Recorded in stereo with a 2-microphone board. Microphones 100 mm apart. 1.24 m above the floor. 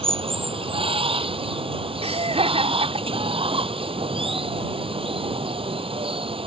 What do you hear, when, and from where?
0.0 s running water: 60° right (ahead or behind)
2.0 s laughter: 75° right (ahead or behind)